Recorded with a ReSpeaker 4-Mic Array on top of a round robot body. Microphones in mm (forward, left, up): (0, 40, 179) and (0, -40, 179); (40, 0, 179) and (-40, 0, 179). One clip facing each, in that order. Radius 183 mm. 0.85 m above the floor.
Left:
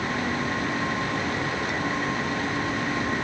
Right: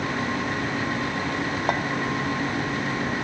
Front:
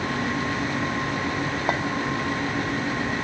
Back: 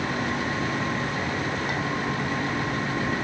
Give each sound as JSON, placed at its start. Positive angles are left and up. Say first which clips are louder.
{"t": 1.7, "sound": "a clink", "louder": "right 6 dB, front 5 dB", "azimuth_deg": -50, "distance_m": 1.9}